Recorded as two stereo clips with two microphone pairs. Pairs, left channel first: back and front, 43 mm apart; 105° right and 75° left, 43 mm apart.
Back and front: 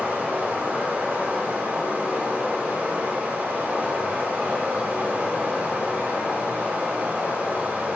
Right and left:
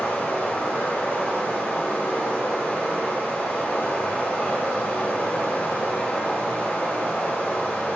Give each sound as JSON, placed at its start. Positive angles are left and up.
{"t": 0.0, "sound": "running water", "azimuth_deg": -55, "distance_m": 1.8}